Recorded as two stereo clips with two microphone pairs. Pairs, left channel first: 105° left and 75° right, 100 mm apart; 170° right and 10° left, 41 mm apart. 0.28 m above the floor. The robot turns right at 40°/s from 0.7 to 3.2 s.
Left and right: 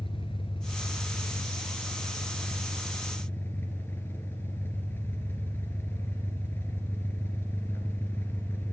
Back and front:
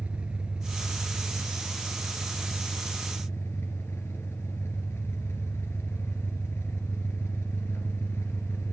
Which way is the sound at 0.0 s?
75° left.